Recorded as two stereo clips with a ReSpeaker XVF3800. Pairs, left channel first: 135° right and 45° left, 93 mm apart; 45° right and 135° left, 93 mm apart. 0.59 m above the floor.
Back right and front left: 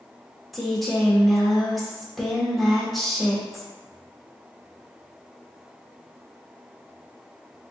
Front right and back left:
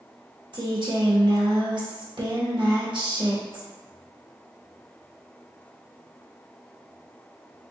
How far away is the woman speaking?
About 1.3 m.